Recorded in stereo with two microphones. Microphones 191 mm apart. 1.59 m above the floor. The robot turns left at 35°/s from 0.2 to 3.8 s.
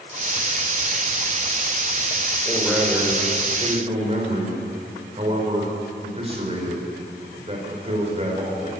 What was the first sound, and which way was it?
A man speaking, 15° left.